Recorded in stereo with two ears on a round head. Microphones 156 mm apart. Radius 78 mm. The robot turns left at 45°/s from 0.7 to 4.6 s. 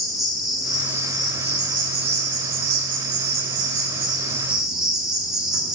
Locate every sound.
0.0 s an insect: straight ahead, 1.6 m; by 5.8 s 175° right, 1.6 m